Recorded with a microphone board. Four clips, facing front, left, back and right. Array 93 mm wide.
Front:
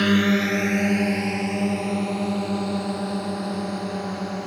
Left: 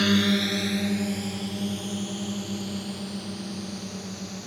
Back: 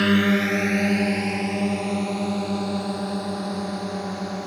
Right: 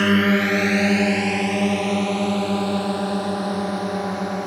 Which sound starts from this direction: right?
A drone, at 0.0 s.